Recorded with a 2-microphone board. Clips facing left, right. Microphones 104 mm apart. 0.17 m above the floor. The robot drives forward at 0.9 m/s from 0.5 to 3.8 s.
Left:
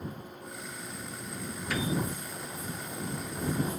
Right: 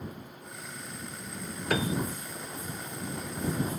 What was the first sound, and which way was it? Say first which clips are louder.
A piano: right 3 dB; 55° right (ahead or behind).